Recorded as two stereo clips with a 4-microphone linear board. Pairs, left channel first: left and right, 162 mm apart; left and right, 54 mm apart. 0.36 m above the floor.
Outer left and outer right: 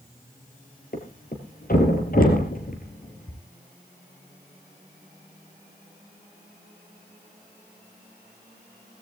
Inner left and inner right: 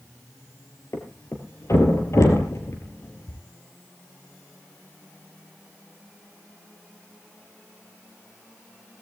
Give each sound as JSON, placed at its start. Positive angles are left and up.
{"t": 0.9, "sound": "a thud", "side_deg": 65, "distance_m": 3.5}